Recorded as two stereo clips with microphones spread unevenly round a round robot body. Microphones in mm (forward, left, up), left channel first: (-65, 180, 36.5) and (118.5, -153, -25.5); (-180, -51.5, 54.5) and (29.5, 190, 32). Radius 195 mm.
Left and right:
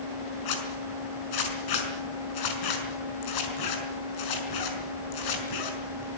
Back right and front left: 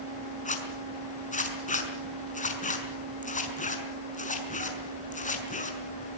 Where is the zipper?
160° left, 5.5 m.